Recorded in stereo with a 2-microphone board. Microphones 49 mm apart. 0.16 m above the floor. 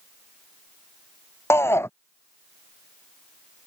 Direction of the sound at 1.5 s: 65° left (ahead or behind).